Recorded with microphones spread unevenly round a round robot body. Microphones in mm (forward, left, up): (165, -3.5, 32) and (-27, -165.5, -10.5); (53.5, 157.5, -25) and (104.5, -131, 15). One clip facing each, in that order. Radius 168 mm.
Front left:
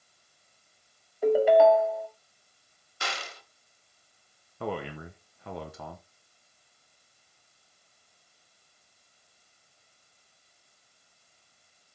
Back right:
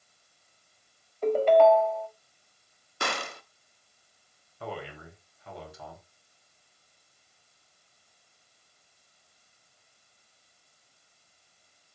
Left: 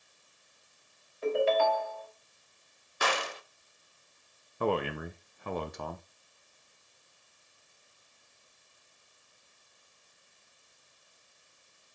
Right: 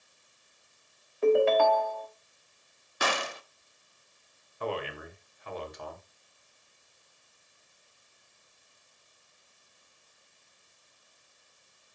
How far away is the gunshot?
About 0.9 m.